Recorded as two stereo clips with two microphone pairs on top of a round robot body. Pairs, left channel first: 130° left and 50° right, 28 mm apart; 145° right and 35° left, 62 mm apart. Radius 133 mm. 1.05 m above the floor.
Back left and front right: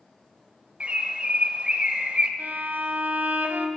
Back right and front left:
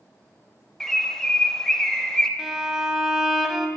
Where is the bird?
50° right, 0.8 m.